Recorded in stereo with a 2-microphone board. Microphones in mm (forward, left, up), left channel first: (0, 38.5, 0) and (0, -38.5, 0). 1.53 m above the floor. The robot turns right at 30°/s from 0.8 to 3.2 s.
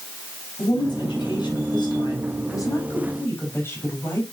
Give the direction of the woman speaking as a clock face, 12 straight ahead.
10 o'clock.